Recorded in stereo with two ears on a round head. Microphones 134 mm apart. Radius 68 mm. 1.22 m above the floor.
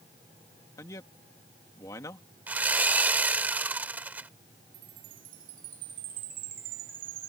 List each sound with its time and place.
0.8 s a man speaking: 20° left (ahead or behind)
2.5 s sawing: 10° right (ahead or behind)
4.7 s a chime: 60° right (ahead or behind)